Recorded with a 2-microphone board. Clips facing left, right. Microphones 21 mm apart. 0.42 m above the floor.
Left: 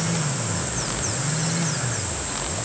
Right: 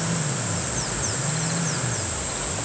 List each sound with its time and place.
Only background noise.